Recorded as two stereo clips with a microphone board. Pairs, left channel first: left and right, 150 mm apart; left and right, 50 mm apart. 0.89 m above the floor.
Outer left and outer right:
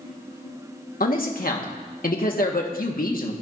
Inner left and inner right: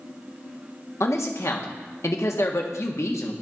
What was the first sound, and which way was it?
A man speaking, 70° left (ahead or behind).